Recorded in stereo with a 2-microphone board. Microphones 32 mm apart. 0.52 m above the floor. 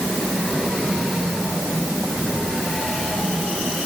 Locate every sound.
Only background noise.